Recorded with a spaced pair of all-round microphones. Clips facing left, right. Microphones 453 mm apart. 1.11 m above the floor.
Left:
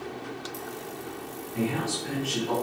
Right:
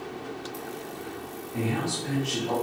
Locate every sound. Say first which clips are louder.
1.5 s a man speaking: even; 60° right (ahead or behind), 1.9 m